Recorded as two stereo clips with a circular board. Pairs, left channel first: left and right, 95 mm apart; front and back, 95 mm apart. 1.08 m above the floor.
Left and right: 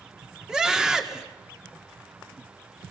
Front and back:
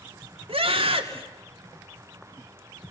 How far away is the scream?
About 2.5 m.